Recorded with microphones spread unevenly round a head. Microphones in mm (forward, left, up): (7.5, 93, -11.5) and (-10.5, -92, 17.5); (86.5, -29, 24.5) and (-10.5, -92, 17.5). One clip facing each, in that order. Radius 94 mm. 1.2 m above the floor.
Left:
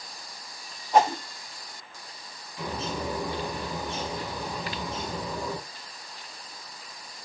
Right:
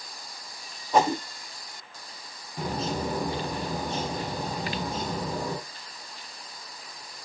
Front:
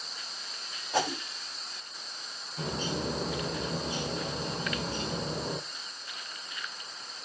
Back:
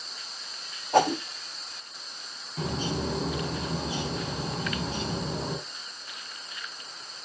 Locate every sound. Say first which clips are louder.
0.9 s a whoosh: left 1 dB, back 8 dB; 105° right, 0.7 m
2.6 s a bird: right 3 dB, back 3 dB; 150° right, 5 m